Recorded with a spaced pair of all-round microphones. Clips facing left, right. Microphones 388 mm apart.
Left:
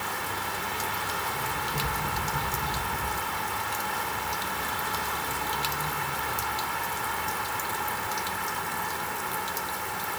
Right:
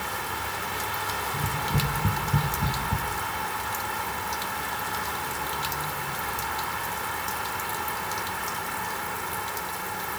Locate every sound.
1.3 s tapping: 50° right (ahead or behind), 5.5 m